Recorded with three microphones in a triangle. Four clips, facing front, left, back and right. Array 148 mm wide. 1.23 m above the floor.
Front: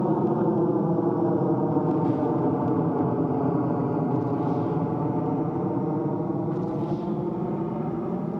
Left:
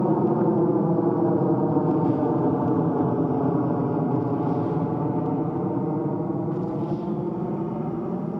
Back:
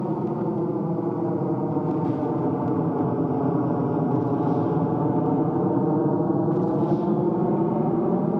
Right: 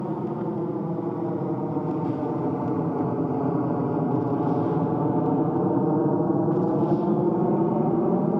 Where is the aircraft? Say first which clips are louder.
Left 7 dB, front 3 dB; 75° left; by 8.4 s 120° right.